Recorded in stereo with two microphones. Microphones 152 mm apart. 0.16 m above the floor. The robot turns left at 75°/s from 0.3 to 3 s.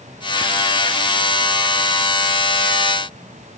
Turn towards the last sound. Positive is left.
No sound to turn to.